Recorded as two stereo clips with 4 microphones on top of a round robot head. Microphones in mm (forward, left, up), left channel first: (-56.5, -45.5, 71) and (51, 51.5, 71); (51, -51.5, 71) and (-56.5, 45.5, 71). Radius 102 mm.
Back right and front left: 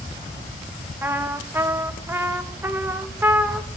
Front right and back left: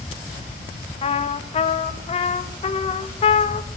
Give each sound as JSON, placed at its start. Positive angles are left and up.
{"t": 1.0, "sound": "a trumpet", "azimuth_deg": -25, "distance_m": 0.6}